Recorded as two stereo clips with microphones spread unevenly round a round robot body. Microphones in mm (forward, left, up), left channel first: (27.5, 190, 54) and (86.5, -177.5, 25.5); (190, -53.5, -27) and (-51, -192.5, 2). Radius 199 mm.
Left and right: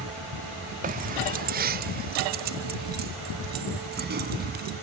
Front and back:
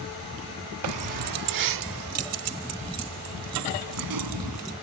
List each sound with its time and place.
0.8 s keys jangling: 145° right; by 4.7 s 150° right